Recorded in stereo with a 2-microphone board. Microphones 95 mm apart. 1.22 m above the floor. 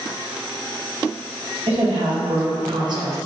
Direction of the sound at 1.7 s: 85° right.